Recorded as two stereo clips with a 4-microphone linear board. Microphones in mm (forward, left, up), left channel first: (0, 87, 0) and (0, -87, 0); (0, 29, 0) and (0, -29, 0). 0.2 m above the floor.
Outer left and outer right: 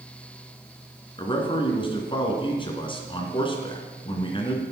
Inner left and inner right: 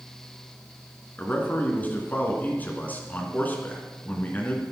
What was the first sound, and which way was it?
A man speaking, 30° left (ahead or behind).